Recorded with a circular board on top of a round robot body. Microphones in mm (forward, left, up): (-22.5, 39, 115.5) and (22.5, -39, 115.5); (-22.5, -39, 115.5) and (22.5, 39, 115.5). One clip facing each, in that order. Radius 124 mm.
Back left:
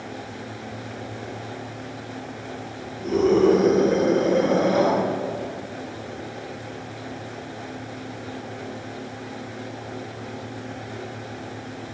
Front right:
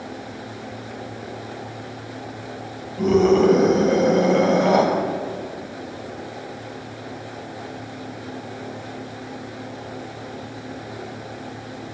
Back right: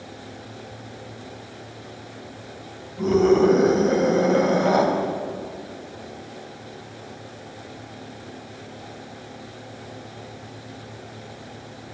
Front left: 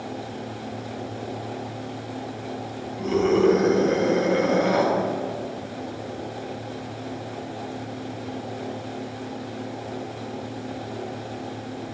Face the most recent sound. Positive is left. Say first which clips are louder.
# front right 3 dB, back right 3 dB
turn(degrees=-60)